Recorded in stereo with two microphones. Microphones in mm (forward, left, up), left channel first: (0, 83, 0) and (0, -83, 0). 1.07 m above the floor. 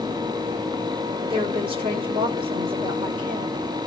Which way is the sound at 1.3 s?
35° right (ahead or behind).